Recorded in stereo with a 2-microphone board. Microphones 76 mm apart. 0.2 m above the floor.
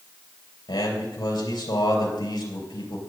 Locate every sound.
0.7 s a man speaking: 70° left (ahead or behind), 3.5 m